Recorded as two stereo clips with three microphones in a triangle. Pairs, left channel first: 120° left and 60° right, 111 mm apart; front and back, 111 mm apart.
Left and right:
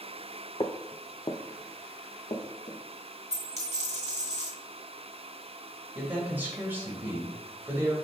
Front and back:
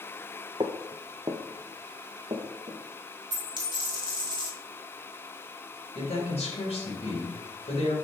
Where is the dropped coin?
135° left, 2.5 m.